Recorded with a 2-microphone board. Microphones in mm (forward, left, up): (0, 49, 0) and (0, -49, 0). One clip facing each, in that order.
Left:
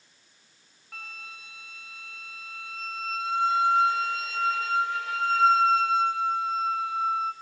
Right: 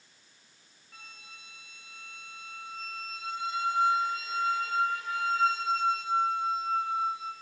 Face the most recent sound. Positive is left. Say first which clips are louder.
# left 8 dB
turn(degrees=80)